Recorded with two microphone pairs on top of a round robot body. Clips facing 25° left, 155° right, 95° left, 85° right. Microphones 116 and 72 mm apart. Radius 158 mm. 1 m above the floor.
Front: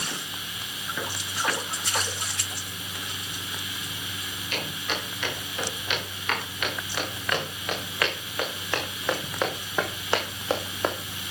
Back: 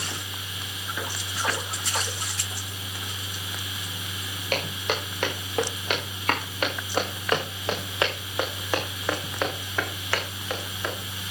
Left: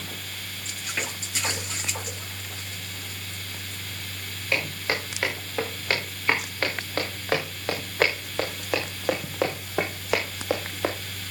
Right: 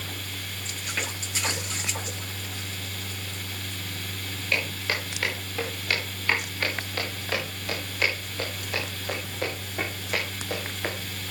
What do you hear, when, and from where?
4.5 s footsteps: 165° left, 6.5 m; by 11.0 s 75° left, 3 m